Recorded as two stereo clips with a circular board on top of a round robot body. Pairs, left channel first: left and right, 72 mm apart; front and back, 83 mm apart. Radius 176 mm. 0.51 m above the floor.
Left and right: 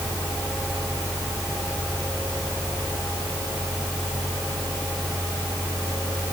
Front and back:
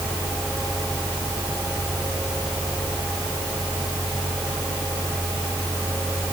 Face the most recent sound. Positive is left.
No sound to turn to.